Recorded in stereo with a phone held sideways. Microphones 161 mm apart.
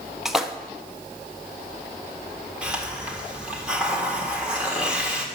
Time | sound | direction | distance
0.2 | a splash | centre (ahead or behind) | 0.8 m
2.6 | a hiss | 5° right (ahead or behind) | 2.0 m